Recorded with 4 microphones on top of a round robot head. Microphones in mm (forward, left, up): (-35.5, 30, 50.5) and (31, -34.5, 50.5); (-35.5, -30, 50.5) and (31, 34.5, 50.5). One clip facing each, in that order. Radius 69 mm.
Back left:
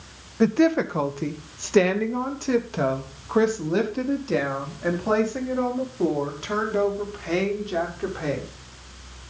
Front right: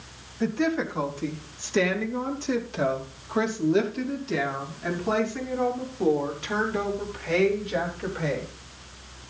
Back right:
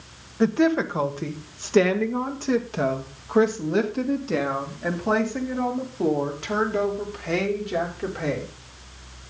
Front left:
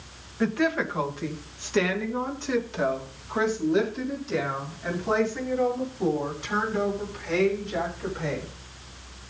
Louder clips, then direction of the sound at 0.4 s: Back left 6 dB, back right 5 dB; 160° left.